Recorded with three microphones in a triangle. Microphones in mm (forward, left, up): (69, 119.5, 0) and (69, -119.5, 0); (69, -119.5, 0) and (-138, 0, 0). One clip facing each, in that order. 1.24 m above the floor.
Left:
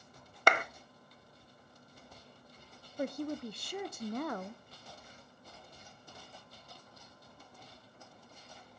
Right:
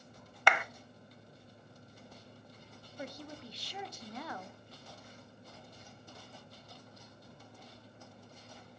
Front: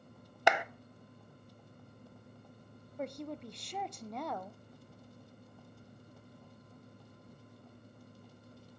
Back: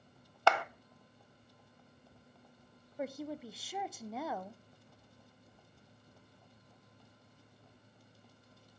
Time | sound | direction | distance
0.5 | a clap | 40° left | 0.6 m
3.0 | a woman speaking | 65° left | 0.6 m